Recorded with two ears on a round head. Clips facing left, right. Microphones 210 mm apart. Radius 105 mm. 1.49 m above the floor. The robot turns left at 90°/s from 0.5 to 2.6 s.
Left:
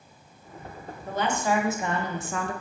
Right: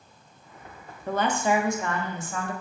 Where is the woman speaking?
125° right, 0.5 m; by 2.5 s 105° left, 0.5 m.